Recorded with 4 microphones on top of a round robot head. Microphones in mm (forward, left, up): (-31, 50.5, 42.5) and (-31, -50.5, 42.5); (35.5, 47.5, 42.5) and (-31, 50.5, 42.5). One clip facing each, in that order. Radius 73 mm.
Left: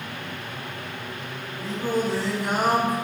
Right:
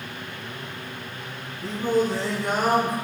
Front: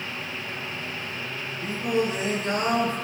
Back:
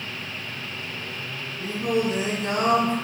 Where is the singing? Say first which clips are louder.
Right 3 dB, back 1 dB; 170° left, 5.5 m.